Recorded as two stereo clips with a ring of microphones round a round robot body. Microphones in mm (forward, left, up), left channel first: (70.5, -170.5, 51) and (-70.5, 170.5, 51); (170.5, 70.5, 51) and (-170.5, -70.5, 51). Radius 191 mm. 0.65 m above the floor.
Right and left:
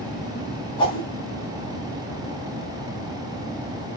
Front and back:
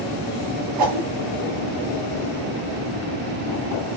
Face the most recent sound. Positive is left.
turn(degrees=-145)